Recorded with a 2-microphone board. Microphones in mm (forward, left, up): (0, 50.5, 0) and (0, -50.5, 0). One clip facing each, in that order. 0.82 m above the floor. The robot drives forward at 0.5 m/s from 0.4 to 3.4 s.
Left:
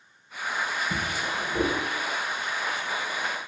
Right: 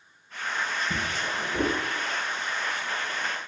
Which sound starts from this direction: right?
A drawer, at 0.9 s.